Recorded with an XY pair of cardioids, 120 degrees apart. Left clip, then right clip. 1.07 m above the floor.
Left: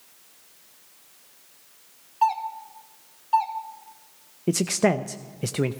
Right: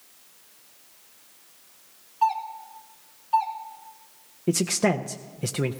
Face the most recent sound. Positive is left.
turn(degrees=10)